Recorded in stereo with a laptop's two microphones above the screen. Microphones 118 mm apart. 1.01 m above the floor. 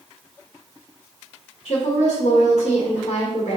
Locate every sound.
1.6 s a woman speaking: 60° left (ahead or behind), 1.6 m